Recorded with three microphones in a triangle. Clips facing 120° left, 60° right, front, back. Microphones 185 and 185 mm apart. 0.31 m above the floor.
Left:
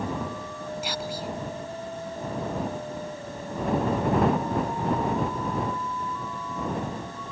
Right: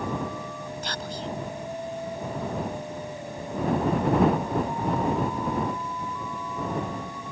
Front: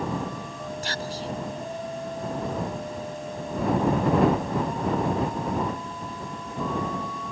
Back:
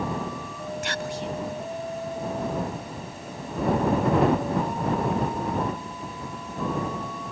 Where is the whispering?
40° left.